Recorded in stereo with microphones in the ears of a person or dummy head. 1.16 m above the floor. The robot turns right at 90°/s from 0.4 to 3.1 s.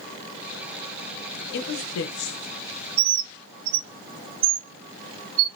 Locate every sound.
1.5 s a woman speaking: 55° left, 0.7 m; by 2.4 s 135° left, 0.7 m
3.0 s a bird: 55° right (ahead or behind), 0.7 m; by 5.5 s 45° right (ahead or behind), 0.7 m